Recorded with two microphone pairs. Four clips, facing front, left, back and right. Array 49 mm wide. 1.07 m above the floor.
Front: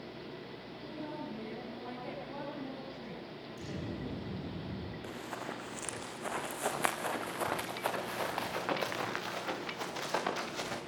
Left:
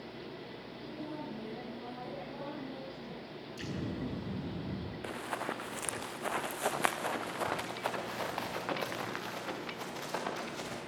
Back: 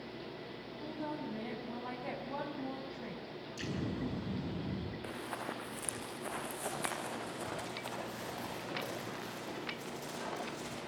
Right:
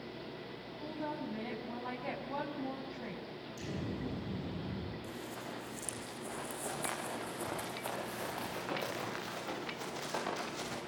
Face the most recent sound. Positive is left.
turn(degrees=10)